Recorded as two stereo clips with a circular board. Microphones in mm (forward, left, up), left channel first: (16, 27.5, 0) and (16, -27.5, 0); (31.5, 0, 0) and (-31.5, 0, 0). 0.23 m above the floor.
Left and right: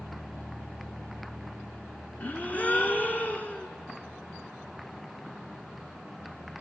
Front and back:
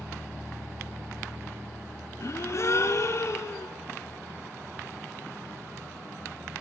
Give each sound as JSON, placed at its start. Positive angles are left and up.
{"t": 2.2, "sound": "a gasp", "azimuth_deg": 30, "distance_m": 1.2}